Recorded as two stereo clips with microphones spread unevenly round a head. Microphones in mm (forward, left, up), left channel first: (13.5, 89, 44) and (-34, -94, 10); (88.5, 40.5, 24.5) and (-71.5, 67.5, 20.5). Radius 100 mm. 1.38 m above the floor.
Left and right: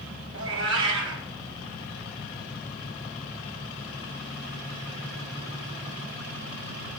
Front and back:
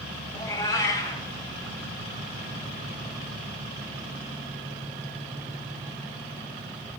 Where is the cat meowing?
75° right, 2.5 m.